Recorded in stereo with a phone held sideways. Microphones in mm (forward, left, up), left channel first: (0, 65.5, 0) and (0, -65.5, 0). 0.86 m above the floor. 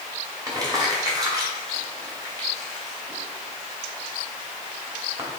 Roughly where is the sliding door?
I don't hear a sliding door.